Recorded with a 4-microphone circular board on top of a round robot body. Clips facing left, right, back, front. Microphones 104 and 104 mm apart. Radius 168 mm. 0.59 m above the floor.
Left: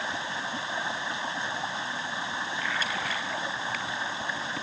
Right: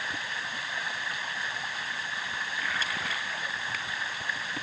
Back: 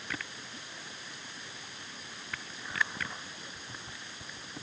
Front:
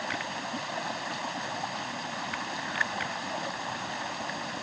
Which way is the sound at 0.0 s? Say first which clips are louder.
Left 3 dB, front 9 dB; 25° left.